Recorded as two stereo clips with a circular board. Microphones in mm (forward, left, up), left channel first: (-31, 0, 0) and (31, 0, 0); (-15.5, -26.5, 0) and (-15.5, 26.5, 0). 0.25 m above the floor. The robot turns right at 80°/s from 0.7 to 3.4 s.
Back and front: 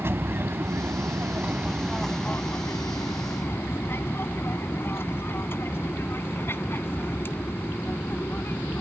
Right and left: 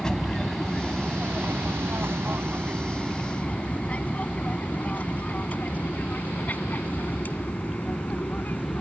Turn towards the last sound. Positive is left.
turn(degrees=-135)